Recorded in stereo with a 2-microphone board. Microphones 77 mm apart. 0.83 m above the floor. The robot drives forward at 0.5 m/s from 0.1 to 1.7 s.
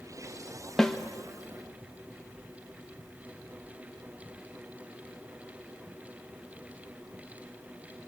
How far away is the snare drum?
About 1.1 m.